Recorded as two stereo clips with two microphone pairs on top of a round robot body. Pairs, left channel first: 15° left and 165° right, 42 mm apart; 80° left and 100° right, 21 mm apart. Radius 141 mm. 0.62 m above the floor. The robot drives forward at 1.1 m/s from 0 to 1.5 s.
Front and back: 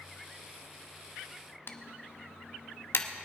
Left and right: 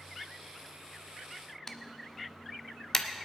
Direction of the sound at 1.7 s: 25° left.